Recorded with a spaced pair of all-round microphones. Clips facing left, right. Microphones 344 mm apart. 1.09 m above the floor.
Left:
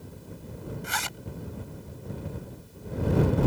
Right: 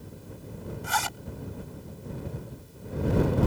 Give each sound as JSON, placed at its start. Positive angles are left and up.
{"t": 0.8, "sound": "a zipper", "side_deg": -70}